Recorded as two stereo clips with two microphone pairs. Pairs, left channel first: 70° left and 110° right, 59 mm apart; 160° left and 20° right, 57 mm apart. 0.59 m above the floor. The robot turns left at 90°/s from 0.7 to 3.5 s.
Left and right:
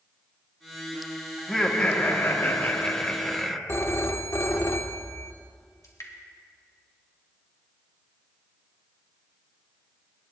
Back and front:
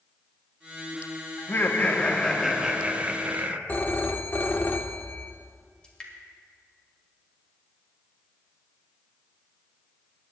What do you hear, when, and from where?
1.4 s laughter: 165° left, 1.1 m; by 3.6 s 25° right, 1.1 m
3.7 s a phone ringing: 105° left, 0.8 m
5.8 s dripping: 85° left, 2 m